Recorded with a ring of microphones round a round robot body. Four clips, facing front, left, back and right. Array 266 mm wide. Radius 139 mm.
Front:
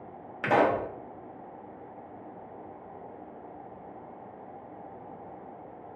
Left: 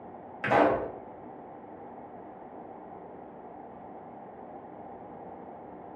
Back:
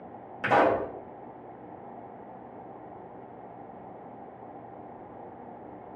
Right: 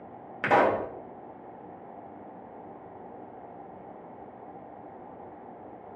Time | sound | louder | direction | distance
0.4 | a pop | right 1 dB, back 1 dB | 70° right | 0.9 m